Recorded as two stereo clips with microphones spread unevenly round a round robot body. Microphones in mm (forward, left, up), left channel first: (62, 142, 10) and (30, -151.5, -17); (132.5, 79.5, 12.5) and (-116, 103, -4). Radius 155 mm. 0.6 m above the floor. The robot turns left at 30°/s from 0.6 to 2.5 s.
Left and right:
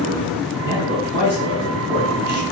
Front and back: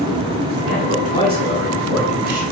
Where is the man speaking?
135° right, 4.5 m; by 2.4 s 170° left, 4.5 m.